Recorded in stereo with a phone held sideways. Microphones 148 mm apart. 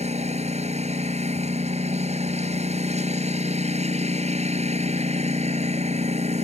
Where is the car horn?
No car horn in this recording.